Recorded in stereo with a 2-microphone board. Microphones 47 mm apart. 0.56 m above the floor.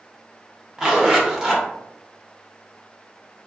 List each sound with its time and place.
0.8 s a zipper: 10° right (ahead or behind), 0.9 m